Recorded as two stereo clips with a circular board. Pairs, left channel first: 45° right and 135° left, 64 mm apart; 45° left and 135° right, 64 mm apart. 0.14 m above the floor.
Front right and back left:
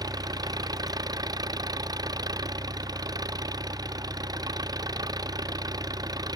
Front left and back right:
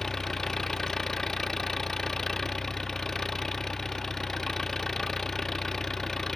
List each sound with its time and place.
0.0 s an engine running: 130° left